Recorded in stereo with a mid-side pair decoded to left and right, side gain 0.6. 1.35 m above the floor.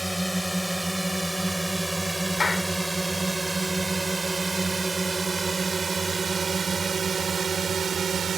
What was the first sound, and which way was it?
A drone, straight ahead.